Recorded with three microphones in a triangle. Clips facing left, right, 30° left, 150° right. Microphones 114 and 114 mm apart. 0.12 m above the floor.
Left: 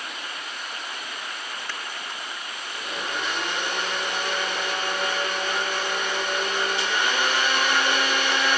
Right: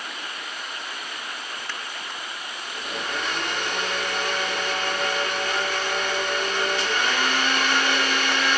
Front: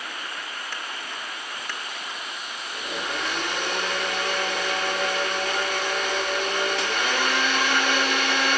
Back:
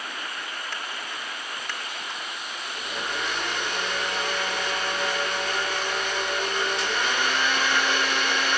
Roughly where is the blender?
Ahead.